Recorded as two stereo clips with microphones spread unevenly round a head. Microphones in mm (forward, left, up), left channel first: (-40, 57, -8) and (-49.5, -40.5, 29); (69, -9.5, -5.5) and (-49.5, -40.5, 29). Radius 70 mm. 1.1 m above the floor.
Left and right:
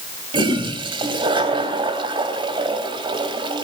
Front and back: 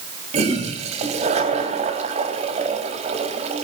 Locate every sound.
0.3 s a toilet flushing: 130° right, 4 m